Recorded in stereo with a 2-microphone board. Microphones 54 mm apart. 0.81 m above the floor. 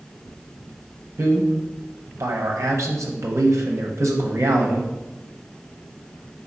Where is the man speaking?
60° right (ahead or behind), 0.6 m.